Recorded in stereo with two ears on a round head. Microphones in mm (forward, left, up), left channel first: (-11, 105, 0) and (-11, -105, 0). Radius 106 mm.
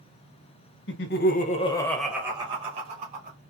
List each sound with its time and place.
0.9 s laughter: 55° left (ahead or behind), 1.5 m; by 3.4 s 40° right (ahead or behind), 2 m